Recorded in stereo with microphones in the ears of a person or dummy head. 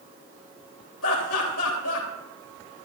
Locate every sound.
1.0 s laughter: 85° left, 3 m